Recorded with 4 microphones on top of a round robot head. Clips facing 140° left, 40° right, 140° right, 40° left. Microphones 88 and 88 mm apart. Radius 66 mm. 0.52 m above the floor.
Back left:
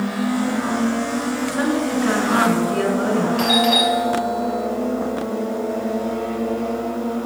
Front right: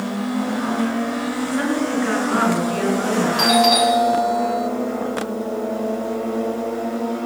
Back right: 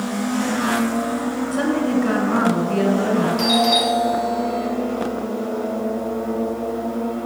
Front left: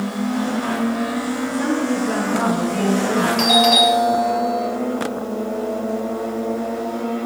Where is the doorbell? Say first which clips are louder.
Front right 2 dB, front left 2 dB; 25° left, 3.5 m.